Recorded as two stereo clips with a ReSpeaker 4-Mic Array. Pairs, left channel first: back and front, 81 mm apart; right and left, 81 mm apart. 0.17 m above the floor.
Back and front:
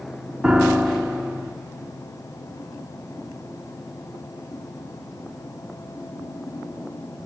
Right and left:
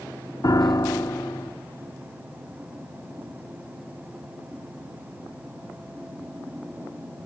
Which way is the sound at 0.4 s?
75° right.